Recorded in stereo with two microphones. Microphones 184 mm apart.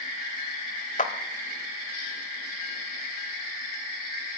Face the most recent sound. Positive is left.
turn(degrees=50)  # may be behind; listen again after turning